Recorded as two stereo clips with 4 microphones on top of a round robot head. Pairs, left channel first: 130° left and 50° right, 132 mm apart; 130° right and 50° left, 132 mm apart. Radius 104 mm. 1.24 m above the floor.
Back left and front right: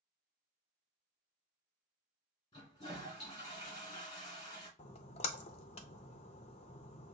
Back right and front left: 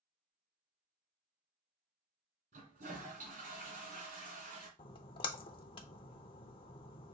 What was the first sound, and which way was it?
A toilet flushing, 70° left.